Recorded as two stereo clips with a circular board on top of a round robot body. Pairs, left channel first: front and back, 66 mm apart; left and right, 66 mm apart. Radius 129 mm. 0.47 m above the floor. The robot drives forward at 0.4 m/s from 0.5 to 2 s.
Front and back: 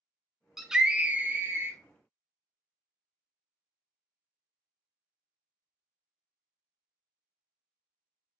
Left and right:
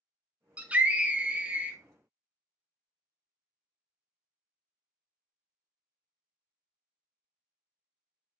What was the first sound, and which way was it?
A scream, 100° right.